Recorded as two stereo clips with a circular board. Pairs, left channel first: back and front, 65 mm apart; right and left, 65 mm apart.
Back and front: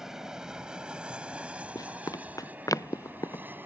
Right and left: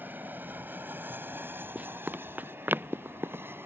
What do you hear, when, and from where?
0.0 s an aircraft: 75° left; by 3.6 s 50° left
1.8 s running footsteps: 155° left; by 3.5 s 140° left